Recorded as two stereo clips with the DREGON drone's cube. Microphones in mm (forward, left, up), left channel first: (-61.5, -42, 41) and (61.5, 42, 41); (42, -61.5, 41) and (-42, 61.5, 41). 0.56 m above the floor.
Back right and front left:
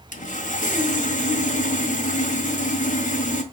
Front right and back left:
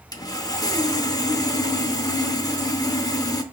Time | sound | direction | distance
0.1 | sawing | 120° right | 0.6 m